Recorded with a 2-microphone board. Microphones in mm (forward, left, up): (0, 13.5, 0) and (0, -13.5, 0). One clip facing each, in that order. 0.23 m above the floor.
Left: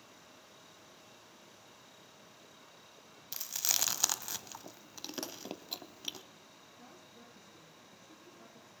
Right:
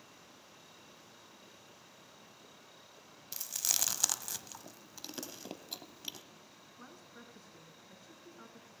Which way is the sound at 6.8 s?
60° right (ahead or behind).